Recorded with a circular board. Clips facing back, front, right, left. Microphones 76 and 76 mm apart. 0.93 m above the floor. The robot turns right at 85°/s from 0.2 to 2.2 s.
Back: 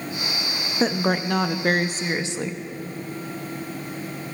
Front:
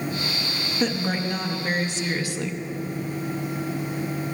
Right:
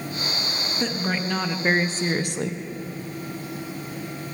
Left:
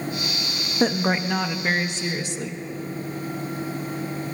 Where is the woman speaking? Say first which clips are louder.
Back 4 dB, left 6 dB; 125° left, 0.5 m; by 2.6 s 115° right, 0.5 m.